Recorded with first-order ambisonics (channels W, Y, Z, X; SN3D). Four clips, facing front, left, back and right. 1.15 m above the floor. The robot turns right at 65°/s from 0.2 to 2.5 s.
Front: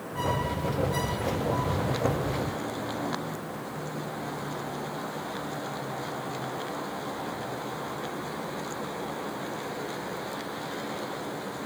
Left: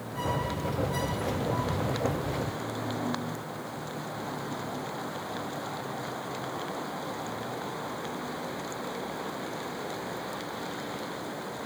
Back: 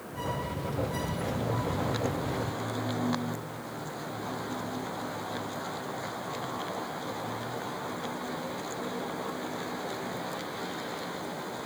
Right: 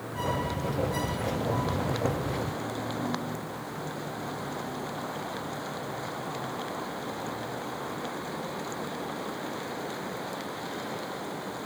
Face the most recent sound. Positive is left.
No sound to turn to.